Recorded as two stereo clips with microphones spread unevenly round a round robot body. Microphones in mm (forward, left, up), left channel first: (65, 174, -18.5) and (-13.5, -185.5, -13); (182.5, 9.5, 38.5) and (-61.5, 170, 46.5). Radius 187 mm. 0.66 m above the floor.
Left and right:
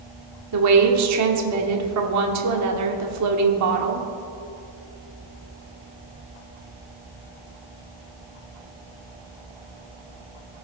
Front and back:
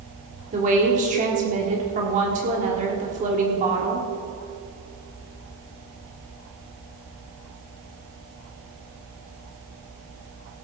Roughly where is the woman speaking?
Behind right.